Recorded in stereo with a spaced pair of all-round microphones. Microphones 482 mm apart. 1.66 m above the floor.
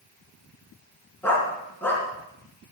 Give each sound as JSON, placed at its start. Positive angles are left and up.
{"t": 1.2, "sound": "a dog barking", "side_deg": 5, "distance_m": 5.0}